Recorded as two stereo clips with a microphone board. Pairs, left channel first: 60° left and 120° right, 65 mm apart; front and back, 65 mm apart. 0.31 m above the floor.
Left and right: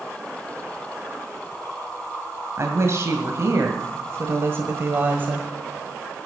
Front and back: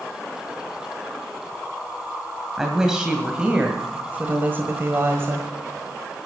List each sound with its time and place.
2.6 s a woman speaking: 95° right, 1.9 m; by 5.5 s 170° right, 1.5 m